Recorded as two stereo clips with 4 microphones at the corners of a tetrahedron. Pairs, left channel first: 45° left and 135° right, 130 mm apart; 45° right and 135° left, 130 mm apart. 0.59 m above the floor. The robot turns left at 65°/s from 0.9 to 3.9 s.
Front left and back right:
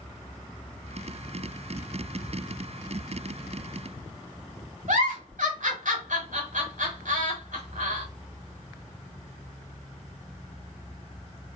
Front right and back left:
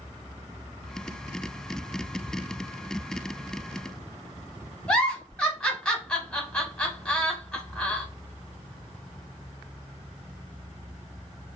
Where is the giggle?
125° right, 1.0 m.